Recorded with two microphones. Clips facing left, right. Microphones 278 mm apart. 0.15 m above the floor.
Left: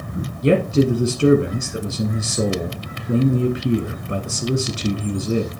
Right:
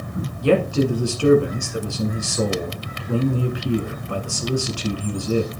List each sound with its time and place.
0.4 s a man speaking: 20° left (ahead or behind), 1.1 m